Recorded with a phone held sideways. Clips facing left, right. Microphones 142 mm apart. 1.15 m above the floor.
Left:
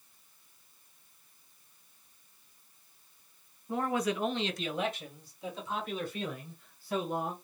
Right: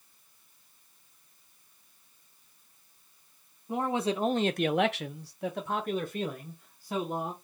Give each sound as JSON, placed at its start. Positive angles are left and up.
{"t": 3.7, "sound": "a man speaking", "side_deg": -20, "distance_m": 0.8}